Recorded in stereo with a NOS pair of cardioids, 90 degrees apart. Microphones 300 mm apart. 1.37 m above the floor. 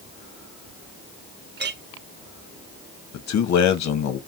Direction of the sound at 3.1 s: 60° left.